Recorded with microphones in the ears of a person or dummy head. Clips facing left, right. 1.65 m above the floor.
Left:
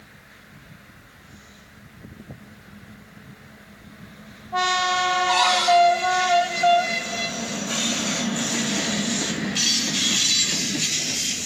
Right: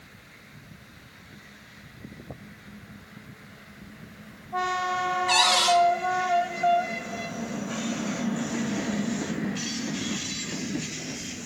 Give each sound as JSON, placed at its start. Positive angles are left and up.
{"t": 5.3, "sound": "a cupboard door", "side_deg": -35, "distance_m": 1.0}